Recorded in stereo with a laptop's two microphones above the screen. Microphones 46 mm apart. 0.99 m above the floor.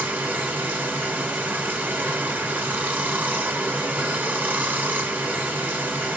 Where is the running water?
35° right (ahead or behind), 1.7 m.